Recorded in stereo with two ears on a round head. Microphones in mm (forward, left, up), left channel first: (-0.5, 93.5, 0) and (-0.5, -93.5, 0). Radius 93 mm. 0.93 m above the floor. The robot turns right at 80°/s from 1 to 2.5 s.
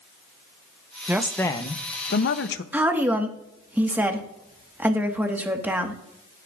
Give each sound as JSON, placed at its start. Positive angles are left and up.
{"t": 1.1, "sound": "a woman speaking", "azimuth_deg": -15, "distance_m": 0.8}
{"t": 2.7, "sound": "a woman speaking", "side_deg": -10, "distance_m": 1.3}